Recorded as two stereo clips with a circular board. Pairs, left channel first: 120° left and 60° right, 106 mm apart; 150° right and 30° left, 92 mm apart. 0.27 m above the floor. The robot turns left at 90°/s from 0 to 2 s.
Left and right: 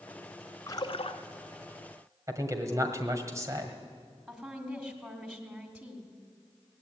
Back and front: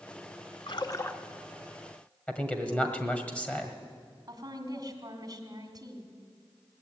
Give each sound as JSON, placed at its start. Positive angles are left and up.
{"t": 0.7, "sound": "a splash", "azimuth_deg": 180, "distance_m": 0.9}
{"t": 2.3, "sound": "a man speaking", "azimuth_deg": -90, "distance_m": 1.7}
{"t": 4.3, "sound": "a woman speaking", "azimuth_deg": 25, "distance_m": 1.7}